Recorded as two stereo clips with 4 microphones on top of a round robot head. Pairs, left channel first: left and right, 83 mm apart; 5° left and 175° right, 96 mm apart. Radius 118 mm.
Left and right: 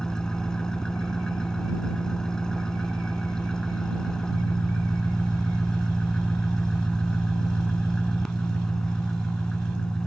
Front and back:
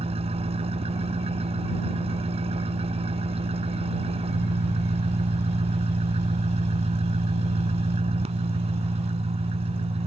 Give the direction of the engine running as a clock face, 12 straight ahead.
6 o'clock.